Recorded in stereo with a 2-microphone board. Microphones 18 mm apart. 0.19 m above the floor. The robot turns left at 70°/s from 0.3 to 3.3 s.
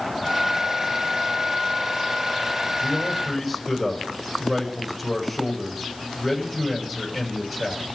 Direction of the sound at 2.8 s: 30° left.